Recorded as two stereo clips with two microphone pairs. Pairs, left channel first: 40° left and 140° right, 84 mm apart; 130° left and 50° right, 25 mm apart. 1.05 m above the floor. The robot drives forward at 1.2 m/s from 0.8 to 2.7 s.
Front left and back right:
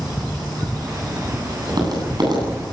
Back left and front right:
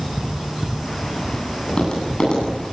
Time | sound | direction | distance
1.7 | tapping | 175° right | 9 m